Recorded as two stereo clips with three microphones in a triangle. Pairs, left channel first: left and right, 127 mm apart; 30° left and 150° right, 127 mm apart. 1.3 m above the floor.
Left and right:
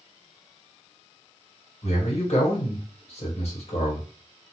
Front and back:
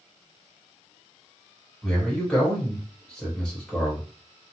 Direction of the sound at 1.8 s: 110° left.